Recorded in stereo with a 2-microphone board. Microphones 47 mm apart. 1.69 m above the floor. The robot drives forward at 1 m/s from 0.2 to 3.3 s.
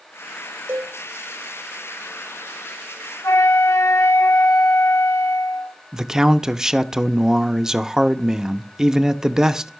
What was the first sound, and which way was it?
A cowbell, 55° right (ahead or behind).